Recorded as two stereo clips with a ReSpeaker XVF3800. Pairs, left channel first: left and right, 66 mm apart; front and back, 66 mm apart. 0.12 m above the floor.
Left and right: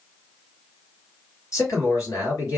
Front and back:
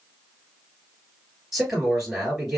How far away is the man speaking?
About 2 m.